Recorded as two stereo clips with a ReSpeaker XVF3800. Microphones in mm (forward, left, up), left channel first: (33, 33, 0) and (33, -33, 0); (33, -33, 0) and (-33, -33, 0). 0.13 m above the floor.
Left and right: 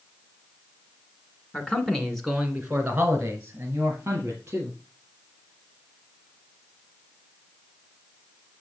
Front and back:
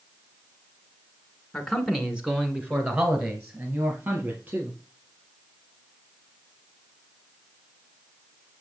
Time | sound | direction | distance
1.5 | a man speaking | 75° left | 1.7 m